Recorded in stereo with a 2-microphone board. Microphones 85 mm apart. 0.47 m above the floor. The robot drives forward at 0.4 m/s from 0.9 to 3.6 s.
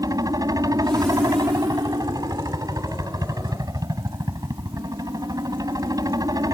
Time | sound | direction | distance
0.0 | a helicopter | 45° right (ahead or behind) | ?